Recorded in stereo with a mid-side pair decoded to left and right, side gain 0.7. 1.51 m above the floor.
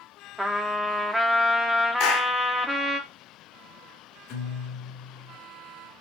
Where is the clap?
60° left, 2.5 m.